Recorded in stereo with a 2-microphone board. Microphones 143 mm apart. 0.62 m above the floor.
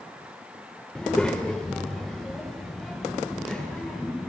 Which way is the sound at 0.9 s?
10° left (ahead or behind).